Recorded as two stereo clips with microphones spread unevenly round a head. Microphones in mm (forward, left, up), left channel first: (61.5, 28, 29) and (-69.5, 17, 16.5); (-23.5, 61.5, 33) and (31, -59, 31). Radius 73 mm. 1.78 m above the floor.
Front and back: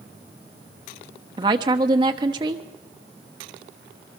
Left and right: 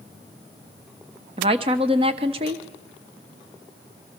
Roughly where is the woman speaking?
Behind right.